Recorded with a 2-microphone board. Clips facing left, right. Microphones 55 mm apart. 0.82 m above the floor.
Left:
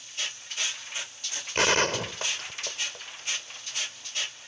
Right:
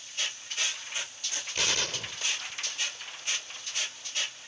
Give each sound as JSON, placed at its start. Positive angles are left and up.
{"t": 1.6, "sound": "a gunshot", "side_deg": 45}